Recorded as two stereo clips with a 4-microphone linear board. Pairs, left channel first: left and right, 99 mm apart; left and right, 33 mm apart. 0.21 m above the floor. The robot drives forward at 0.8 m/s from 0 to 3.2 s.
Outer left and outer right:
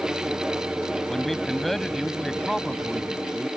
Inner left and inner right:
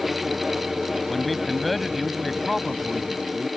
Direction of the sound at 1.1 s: 5° left (ahead or behind).